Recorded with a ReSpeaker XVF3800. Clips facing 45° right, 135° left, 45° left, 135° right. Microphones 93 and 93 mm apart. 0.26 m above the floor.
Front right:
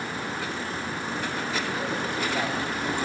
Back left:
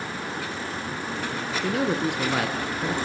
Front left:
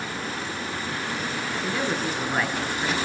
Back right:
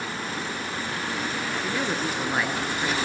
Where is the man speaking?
140° left, 4 m.